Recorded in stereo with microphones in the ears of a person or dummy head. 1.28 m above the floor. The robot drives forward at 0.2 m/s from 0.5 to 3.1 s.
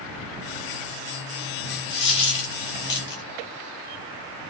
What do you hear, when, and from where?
1.9 s a dropped coin: 30° left (ahead or behind), 0.7 m; by 3.2 s 25° left (ahead or behind), 0.8 m